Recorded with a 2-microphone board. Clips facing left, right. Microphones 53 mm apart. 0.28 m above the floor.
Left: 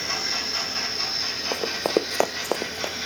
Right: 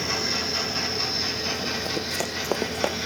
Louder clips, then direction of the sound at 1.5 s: Left 9 dB; 80° left.